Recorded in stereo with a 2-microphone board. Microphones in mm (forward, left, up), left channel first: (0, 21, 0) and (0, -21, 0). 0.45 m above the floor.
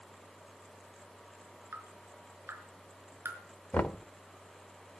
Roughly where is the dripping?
Right.